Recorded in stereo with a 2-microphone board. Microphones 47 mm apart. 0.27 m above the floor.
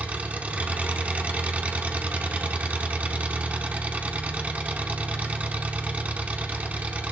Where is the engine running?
30° right (ahead or behind), 1.4 m.